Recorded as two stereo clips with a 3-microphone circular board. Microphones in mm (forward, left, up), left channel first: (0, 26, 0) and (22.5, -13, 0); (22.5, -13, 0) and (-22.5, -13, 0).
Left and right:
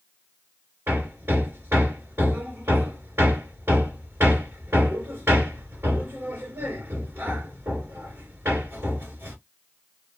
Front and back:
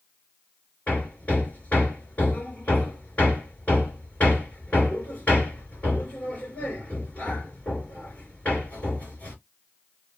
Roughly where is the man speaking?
I don't hear a man speaking.